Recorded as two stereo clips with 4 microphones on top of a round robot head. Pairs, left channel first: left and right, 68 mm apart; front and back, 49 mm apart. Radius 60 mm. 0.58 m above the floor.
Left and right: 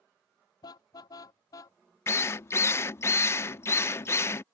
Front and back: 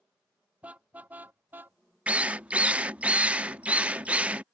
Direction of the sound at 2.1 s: 125° left.